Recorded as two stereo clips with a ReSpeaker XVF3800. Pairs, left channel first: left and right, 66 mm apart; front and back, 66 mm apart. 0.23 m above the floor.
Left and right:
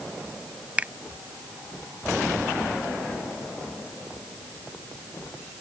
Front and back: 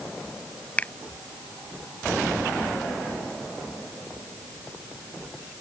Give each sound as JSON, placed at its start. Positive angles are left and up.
{"t": 0.8, "sound": "a finger snap", "azimuth_deg": -45}